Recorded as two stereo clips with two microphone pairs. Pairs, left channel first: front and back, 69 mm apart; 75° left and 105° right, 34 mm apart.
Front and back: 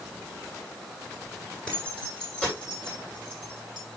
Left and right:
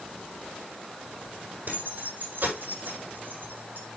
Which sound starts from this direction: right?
Keys jangling, at 1.7 s.